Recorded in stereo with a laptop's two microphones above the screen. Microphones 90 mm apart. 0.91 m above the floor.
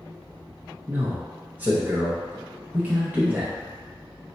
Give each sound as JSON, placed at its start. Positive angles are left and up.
{"t": 0.9, "sound": "a man speaking", "side_deg": -20, "distance_m": 0.6}